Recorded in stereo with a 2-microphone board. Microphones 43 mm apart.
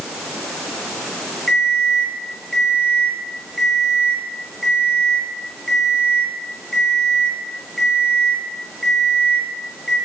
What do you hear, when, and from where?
1.5 s an alarm clock: 5° left (ahead or behind), 10 m